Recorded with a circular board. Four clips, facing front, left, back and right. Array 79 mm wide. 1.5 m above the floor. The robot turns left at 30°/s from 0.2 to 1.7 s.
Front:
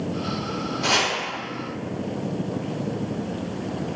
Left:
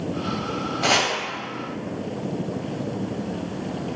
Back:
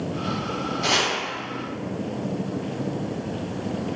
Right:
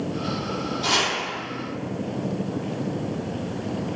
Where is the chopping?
95° left, 0.9 m; by 1.1 s 85° left, 0.9 m.